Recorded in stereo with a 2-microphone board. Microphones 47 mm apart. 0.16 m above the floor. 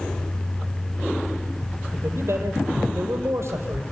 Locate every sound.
1.9 s a man speaking: 70° right (ahead or behind), 4 m